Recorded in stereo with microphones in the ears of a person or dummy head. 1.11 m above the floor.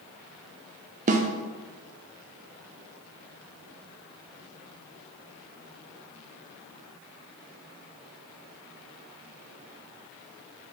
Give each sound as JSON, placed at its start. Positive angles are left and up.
{"t": 1.1, "sound": "a snare drum", "side_deg": -30, "distance_m": 0.6}